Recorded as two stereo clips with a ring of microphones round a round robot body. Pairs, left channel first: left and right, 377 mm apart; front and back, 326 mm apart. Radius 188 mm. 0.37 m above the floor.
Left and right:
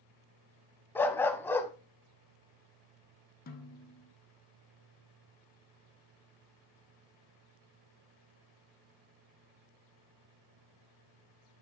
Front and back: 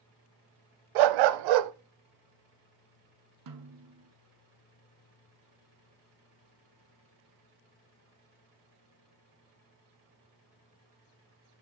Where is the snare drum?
155° left, 1.2 m.